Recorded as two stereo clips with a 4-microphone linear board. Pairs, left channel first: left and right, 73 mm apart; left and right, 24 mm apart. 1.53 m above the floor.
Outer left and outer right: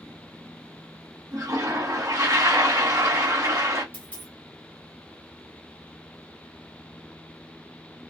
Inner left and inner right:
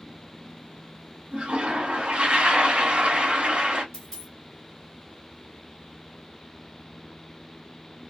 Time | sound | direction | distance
1.3 | a toilet flushing | 55° right (ahead or behind) | 1.1 m
3.9 | a dropped coin | 20° left (ahead or behind) | 1.4 m